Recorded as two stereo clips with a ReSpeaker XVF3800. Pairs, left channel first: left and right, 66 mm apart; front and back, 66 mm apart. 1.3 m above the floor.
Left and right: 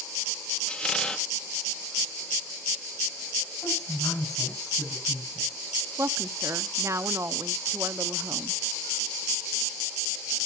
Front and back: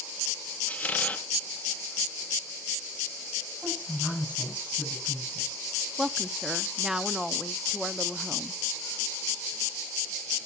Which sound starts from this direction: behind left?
A woman speaking, at 3.6 s.